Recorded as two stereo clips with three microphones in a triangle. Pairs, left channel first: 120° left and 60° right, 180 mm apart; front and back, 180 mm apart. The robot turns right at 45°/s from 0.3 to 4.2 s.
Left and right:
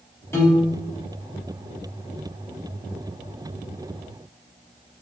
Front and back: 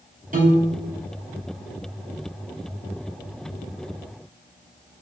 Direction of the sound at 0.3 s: 170° right.